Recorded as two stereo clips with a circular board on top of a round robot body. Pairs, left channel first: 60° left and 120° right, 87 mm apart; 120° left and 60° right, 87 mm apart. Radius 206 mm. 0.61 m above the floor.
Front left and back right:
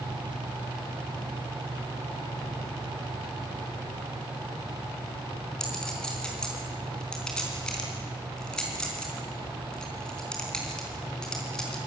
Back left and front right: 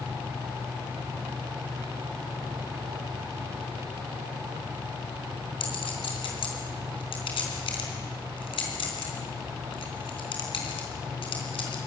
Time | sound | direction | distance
5.6 | a clink | 140° left | 4 m